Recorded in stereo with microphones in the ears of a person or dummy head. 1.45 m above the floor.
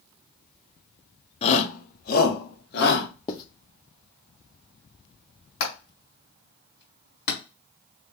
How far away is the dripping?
I don't hear dripping.